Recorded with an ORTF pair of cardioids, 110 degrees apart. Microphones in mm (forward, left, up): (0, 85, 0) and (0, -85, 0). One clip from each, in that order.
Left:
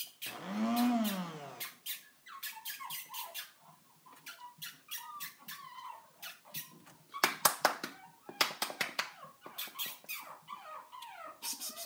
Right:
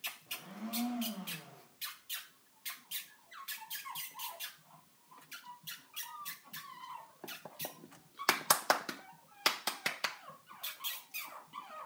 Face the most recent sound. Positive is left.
turn(degrees=60)